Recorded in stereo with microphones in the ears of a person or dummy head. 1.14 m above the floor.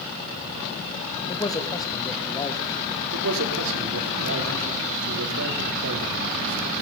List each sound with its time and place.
1.3 s a man speaking: 30° left (ahead or behind), 2 m
3.1 s a man speaking: 85° right, 3.5 m